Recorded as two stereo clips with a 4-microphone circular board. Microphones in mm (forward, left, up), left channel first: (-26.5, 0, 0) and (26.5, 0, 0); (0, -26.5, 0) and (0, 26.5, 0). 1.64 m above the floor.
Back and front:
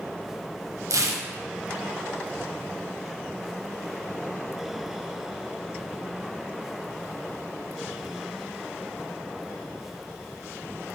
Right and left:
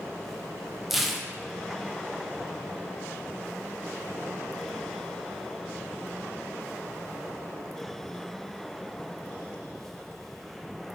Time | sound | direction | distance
0.9 | tearing paper | 5° left | 1.2 m